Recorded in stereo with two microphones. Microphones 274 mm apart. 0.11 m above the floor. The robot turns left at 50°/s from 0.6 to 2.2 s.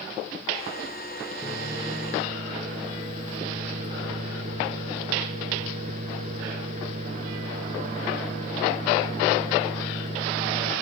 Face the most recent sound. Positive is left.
turn(degrees=-25)  # may be behind; listen again after turning